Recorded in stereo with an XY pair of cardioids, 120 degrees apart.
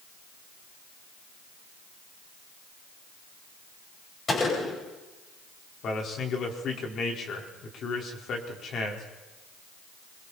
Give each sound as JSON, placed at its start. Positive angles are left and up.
{"t": 4.3, "sound": "a gunshot", "azimuth_deg": 35, "distance_m": 9.5}
{"t": 5.8, "sound": "a man speaking", "azimuth_deg": 50, "distance_m": 5.0}